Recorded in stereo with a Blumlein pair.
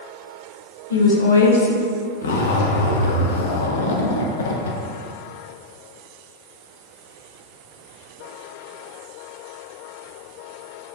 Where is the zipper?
65° left, 0.5 m.